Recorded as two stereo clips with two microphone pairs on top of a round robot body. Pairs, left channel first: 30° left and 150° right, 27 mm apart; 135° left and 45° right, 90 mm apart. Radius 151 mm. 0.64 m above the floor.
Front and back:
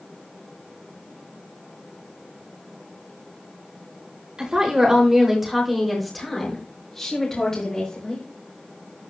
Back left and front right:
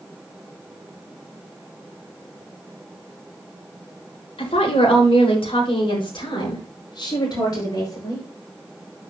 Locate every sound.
4.4 s a woman speaking: 140° left, 4 m; by 8.2 s 85° left, 5.5 m